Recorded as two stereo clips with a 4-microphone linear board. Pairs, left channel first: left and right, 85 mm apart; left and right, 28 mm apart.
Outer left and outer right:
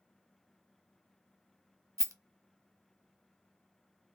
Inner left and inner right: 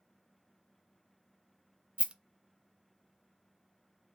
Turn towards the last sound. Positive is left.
turn(degrees=-35)  # may be behind; listen again after turning